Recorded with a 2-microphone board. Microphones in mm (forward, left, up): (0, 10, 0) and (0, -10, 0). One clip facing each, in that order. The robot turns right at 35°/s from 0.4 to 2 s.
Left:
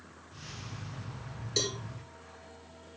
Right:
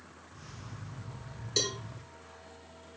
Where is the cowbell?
Centre (ahead or behind), 2.5 m; by 1.8 s 5° right (ahead or behind), 2.5 m.